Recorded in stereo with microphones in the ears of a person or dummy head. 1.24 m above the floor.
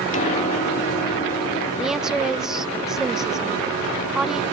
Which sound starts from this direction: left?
A piano, at 0.1 s.